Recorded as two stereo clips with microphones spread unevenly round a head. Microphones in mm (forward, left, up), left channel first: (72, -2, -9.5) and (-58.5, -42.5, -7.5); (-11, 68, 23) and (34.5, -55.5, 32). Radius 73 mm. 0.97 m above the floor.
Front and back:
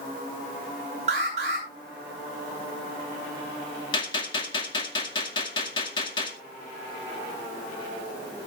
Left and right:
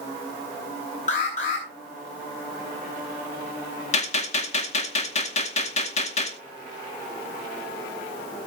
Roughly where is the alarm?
Behind left.